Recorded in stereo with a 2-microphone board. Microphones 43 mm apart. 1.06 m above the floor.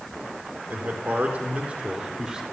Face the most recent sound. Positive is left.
turn(degrees=-15)  # may be behind; listen again after turning